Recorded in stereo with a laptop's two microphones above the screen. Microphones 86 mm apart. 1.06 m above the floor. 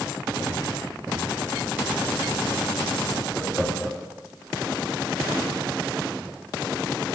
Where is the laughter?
10° left (ahead or behind), 1.8 m.